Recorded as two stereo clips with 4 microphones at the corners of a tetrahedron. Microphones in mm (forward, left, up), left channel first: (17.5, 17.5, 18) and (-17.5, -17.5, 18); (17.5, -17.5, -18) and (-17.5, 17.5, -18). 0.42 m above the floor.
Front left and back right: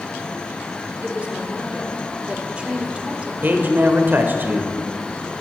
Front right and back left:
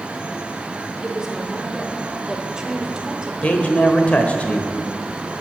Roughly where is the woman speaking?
Behind.